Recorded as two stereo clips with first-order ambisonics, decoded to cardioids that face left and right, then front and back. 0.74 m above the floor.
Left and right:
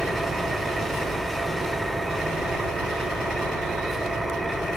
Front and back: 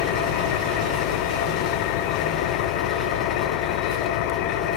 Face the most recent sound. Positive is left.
turn(degrees=-5)